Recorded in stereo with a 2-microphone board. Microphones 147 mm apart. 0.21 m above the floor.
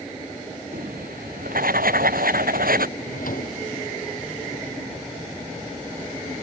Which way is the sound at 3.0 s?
75° left (ahead or behind).